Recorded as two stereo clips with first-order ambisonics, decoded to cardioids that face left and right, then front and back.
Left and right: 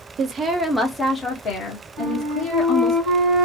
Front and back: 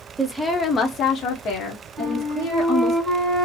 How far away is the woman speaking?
About 0.5 m.